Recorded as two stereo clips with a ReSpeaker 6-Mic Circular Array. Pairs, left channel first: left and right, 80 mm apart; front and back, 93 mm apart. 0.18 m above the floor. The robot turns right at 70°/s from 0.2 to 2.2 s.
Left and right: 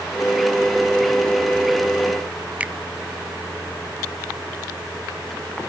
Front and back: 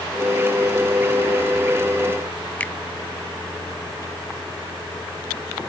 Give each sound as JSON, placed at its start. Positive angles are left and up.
{"t": 2.6, "sound": "a finger snap", "azimuth_deg": -45}